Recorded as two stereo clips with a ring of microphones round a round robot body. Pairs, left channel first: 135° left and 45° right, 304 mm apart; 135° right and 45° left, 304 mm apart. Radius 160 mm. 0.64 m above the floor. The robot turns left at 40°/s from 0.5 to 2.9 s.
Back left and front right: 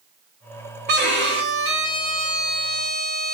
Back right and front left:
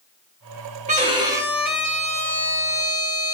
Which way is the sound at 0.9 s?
10° right.